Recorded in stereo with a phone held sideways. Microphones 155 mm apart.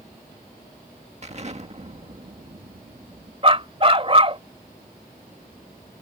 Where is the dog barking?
40° right (ahead or behind).